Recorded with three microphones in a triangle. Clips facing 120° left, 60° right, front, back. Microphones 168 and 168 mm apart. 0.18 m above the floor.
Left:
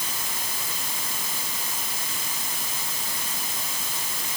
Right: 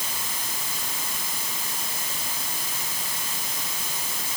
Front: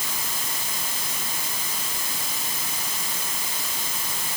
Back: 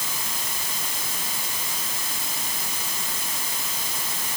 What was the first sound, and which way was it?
Only background noise.